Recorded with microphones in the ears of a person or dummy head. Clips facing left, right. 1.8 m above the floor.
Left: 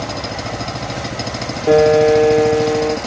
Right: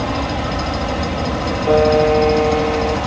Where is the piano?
20° left (ahead or behind).